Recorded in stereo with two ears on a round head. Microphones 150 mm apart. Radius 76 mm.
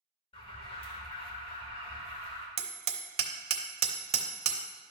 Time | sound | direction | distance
0.3 | an alarm | 35° left (ahead or behind) | 1.4 m
2.6 | hammering | 40° right (ahead or behind) | 0.9 m